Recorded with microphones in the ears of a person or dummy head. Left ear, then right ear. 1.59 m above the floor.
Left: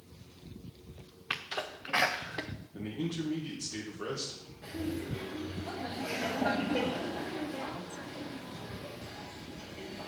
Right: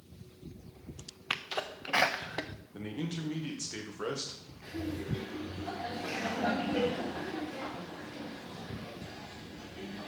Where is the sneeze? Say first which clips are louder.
Right 1 dB; 15° right (ahead or behind), 0.6 m.